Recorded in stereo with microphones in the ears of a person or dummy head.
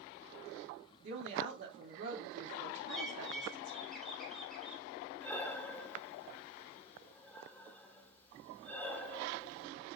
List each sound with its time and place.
1.0 s a woman speaking: 55° right (ahead or behind), 3.5 m
2.9 s a bird: 5° left (ahead or behind), 3.5 m
5.2 s breathing: 10° left (ahead or behind), 1.6 m